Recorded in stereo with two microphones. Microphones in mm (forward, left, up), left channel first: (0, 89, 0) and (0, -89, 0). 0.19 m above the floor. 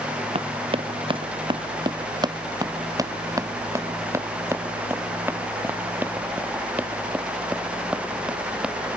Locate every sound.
0.3 s running footsteps: 35° right (ahead or behind); by 8.8 s 5° right (ahead or behind)